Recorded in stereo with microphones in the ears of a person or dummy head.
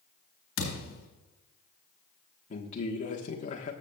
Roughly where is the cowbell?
I don't hear a cowbell.